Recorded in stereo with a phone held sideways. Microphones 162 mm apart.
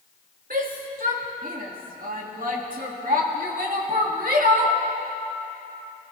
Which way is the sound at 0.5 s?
65° right (ahead or behind).